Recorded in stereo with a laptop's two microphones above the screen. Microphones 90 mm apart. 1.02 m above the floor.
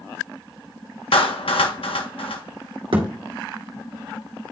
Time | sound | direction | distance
1.1 | a clap | 75° left (ahead or behind) | 1.2 m
2.9 | a thud | 65° right (ahead or behind) | 2.0 m